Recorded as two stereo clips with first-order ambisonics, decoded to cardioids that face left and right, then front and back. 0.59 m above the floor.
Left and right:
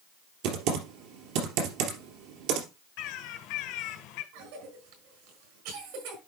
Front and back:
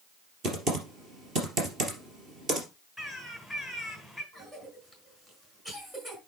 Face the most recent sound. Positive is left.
turn(degrees=-105)